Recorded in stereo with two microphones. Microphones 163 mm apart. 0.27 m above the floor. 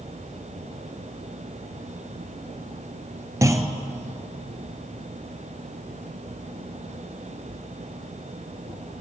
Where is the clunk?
20° right (ahead or behind), 1.1 m.